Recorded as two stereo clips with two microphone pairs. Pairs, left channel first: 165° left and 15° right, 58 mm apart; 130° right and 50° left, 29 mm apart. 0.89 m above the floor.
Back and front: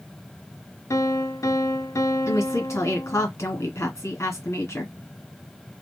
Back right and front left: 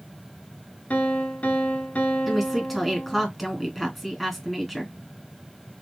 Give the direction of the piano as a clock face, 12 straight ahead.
6 o'clock.